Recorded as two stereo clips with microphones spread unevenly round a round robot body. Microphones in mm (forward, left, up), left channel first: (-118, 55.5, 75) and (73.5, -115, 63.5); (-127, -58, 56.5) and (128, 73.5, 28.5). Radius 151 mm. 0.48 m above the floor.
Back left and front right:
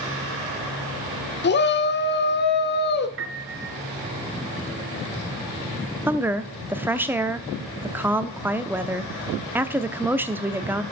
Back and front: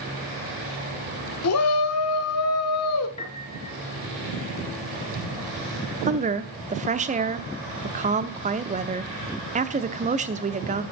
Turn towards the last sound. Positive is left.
turn(degrees=30)